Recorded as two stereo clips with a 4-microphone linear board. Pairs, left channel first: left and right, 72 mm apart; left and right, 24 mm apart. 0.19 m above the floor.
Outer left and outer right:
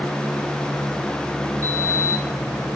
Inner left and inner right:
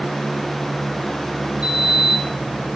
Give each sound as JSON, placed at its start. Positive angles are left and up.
{"t": 1.6, "sound": "a sliding door", "side_deg": -50, "distance_m": 2.5}